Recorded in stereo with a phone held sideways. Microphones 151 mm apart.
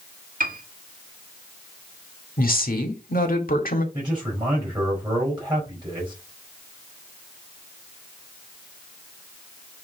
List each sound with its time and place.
0.4 s a piano: 65° right (ahead or behind), 1.3 m
2.4 s a woman speaking: 75° left (ahead or behind), 1.7 m
3.9 s a man speaking: 25° right (ahead or behind), 4.5 m